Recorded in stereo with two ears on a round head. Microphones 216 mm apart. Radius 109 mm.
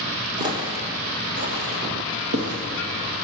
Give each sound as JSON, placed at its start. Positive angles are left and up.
{"t": 0.4, "sound": "footsteps", "side_deg": -15, "distance_m": 1.2}